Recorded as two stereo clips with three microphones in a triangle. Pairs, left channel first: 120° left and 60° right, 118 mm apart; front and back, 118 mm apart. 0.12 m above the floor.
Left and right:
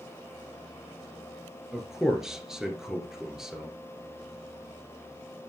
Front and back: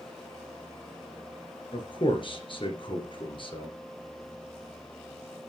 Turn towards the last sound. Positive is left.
turn(degrees=25)